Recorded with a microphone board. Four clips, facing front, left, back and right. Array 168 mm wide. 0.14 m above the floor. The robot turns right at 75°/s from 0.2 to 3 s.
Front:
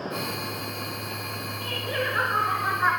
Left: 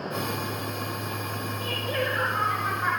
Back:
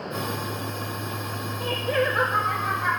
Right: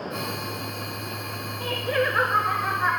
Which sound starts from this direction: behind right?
Laughter, at 1.6 s.